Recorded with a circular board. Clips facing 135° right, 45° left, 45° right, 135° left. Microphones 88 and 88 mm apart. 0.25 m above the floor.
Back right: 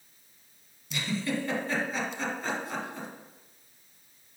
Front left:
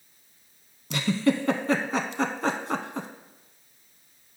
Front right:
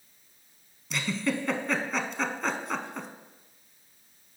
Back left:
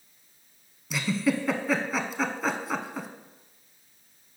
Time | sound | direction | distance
0.9 | a giggle | 50° left | 0.6 m